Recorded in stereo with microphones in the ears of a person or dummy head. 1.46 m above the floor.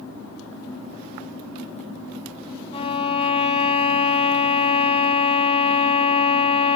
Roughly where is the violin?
Left.